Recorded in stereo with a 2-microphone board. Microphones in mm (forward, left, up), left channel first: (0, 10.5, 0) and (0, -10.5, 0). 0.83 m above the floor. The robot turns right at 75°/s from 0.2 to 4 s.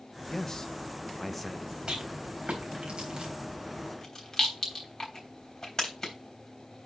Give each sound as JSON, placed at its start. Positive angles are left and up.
{"t": 0.3, "sound": "a man speaking", "side_deg": 30, "distance_m": 0.8}
{"t": 1.9, "sound": "a rattle", "side_deg": -45, "distance_m": 3.5}